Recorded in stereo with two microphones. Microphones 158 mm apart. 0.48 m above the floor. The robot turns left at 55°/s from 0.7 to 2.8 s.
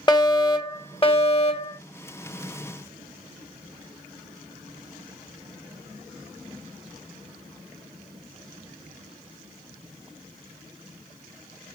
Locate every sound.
0.1 s a fire alarm: 135° left, 2 m; by 1.8 s 75° left, 2 m